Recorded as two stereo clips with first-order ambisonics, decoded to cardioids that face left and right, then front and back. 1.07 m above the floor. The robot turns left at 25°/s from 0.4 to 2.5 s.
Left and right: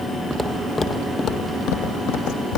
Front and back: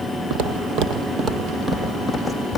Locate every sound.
0.3 s footsteps: 175° right, 1.7 m; by 2.6 s 70° left, 2.5 m